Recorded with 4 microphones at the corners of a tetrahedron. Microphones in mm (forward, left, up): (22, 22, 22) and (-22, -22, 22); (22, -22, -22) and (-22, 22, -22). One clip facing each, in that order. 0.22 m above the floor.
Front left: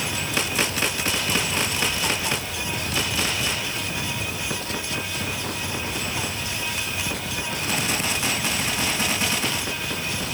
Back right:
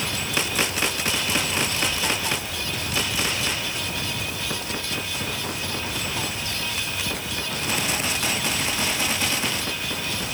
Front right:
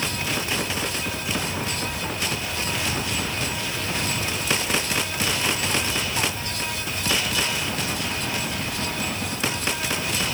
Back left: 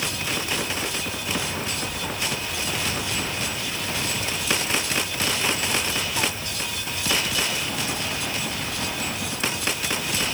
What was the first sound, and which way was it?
Only background noise.